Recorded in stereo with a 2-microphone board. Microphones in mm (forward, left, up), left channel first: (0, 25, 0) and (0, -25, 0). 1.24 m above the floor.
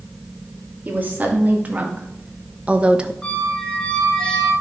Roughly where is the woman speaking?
Right.